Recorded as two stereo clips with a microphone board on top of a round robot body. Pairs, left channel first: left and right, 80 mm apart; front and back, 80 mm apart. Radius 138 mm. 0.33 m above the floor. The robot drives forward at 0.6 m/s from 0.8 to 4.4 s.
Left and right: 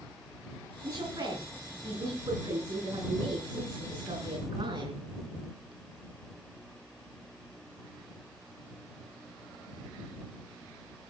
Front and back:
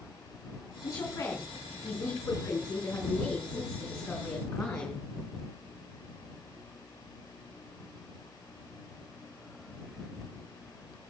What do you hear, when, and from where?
0.8 s a woman speaking: 55° right, 5.5 m; by 5.0 s 80° right, 5 m